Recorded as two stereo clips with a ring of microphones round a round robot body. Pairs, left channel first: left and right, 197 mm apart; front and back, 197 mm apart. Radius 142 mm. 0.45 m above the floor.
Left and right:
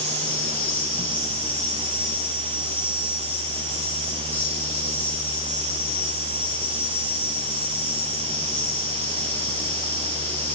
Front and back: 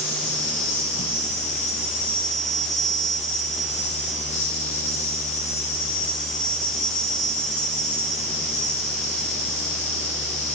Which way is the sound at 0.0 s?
10° left.